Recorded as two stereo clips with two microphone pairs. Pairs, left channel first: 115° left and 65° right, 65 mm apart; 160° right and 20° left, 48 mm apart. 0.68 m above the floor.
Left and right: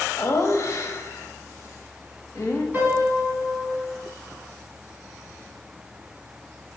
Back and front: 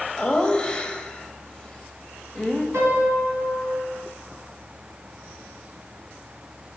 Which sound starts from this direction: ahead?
A piano, at 2.7 s.